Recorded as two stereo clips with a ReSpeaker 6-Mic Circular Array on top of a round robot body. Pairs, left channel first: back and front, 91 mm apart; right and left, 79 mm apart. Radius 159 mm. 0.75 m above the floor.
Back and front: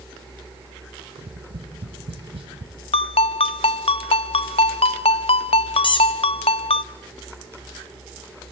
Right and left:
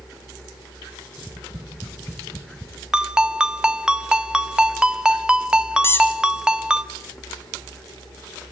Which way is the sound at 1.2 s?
25° left.